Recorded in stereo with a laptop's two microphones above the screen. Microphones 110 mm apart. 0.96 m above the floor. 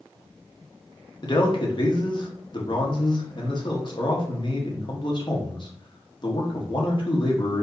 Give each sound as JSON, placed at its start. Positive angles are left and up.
{"t": 1.2, "sound": "a man speaking", "side_deg": 45, "distance_m": 1.2}